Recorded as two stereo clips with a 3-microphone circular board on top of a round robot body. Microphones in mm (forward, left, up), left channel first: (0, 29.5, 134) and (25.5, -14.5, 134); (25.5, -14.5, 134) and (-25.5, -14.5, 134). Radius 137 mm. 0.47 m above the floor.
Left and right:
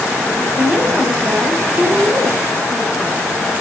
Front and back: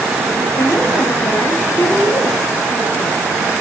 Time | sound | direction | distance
0.5 | a woman speaking | 5° right | 3 m